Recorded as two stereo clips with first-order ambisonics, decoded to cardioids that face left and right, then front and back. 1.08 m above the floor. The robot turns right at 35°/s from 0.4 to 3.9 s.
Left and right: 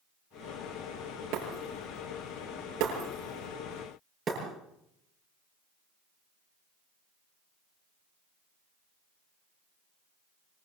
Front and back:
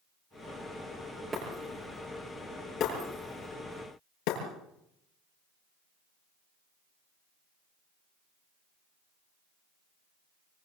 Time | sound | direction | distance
1.3 | breaking glass | 110° right | 7.5 m